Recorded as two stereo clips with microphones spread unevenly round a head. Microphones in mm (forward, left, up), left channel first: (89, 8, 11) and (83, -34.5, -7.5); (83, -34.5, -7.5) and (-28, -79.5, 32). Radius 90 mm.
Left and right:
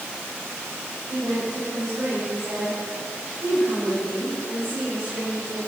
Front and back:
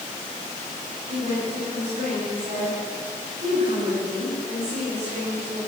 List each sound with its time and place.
1.1 s a woman speaking: 145° right, 7.5 m